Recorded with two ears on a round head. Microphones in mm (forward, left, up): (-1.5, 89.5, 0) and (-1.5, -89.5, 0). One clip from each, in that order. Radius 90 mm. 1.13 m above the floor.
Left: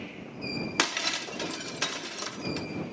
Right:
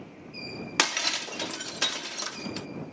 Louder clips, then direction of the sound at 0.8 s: Right 3 dB; 20° right (ahead or behind).